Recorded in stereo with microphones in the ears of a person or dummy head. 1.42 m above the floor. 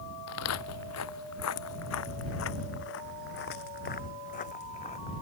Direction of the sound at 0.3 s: 75° left (ahead or behind).